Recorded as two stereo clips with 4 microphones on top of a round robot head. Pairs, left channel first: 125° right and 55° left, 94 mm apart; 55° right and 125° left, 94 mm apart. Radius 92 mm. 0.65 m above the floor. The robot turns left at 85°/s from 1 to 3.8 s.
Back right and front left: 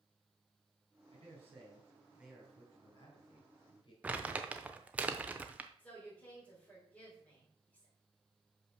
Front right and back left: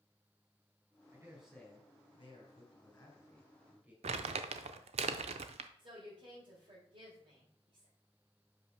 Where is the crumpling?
130° left, 0.5 m.